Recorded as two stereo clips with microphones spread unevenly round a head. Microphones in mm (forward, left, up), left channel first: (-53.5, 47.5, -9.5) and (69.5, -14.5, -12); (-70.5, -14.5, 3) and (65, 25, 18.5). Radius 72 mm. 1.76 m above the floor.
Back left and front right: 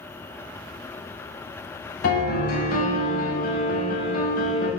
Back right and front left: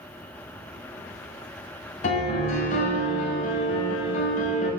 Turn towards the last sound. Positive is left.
turn(degrees=160)